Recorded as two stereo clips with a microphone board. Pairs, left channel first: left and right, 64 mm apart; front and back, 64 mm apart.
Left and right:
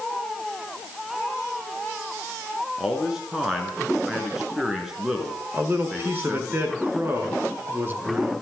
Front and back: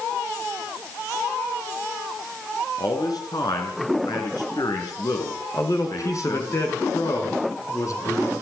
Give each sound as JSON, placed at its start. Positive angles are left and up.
{"t": 2.8, "sound": "a man speaking", "azimuth_deg": -5, "distance_m": 4.5}
{"t": 5.5, "sound": "a man speaking", "azimuth_deg": -35, "distance_m": 5.5}